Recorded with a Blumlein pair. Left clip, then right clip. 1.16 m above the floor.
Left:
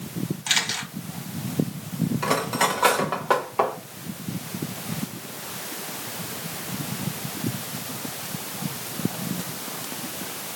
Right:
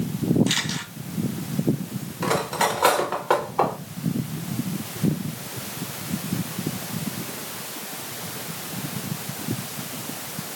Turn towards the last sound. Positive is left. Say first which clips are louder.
# right 1 dB
turn(degrees=0)